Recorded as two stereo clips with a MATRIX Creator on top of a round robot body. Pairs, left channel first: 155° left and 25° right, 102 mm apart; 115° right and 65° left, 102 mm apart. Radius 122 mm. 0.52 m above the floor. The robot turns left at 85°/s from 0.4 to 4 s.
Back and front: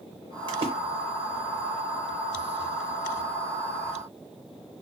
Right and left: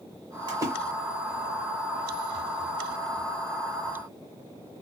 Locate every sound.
0.5 s a splash: 20° left, 0.6 m; by 0.7 s straight ahead, 0.6 m